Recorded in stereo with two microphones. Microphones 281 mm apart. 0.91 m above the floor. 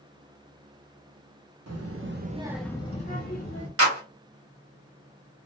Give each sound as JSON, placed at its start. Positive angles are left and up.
{"t": 1.7, "sound": "a child speaking", "side_deg": -70, "distance_m": 0.8}
{"t": 3.8, "sound": "a clap", "side_deg": -60, "distance_m": 1.2}